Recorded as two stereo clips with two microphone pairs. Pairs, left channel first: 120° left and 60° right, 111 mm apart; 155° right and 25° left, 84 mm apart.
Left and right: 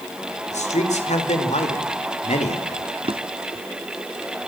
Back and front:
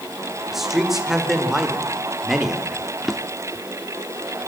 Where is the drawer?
65° right, 1.0 m.